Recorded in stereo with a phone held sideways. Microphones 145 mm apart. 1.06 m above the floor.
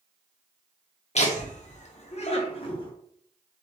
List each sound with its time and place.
1.1 s laughter: 45° left (ahead or behind), 0.7 m; by 2.9 s 35° left (ahead or behind), 1.0 m